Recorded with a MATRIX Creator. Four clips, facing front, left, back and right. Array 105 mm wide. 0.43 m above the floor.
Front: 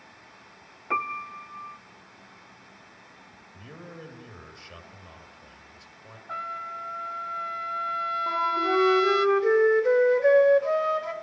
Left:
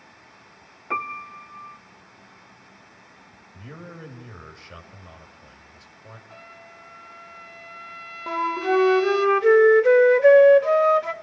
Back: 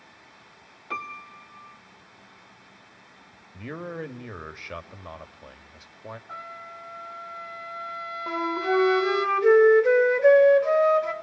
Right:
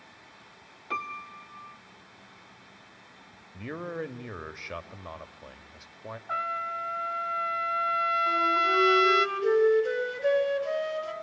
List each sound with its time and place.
0.9 s a piano: 55° left, 0.7 m
3.5 s a man speaking: 140° right, 2 m
6.3 s a trumpet: 75° right, 0.8 m
8.3 s a flute: 105° left, 2 m